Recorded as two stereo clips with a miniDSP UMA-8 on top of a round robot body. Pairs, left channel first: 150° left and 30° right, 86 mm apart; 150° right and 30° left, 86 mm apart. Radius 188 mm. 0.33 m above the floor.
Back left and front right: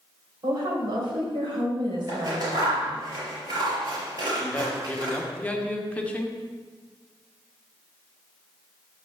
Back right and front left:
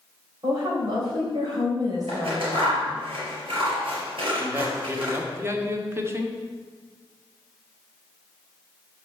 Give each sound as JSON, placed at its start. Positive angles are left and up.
{"t": 0.4, "sound": "a woman speaking", "azimuth_deg": -5, "distance_m": 3.5}
{"t": 2.1, "sound": "scissors", "azimuth_deg": 10, "distance_m": 4.0}
{"t": 4.4, "sound": "a man speaking", "azimuth_deg": 85, "distance_m": 1.4}